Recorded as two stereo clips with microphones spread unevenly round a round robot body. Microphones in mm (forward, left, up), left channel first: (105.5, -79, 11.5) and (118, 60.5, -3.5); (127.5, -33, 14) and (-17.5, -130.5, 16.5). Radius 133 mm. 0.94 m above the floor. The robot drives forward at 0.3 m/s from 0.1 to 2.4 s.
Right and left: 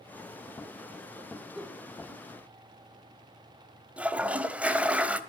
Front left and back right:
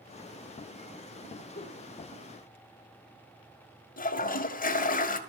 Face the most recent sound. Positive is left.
turn(degrees=0)